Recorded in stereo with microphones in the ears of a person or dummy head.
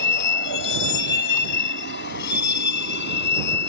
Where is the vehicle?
70° left (ahead or behind); by 3.7 s 65° left (ahead or behind).